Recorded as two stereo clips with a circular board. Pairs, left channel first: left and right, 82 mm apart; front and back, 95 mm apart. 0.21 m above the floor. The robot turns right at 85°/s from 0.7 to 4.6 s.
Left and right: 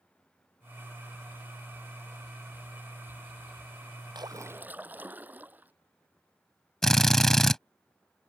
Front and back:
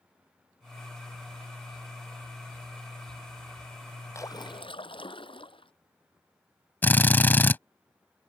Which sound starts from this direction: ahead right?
A splash, at 4.2 s.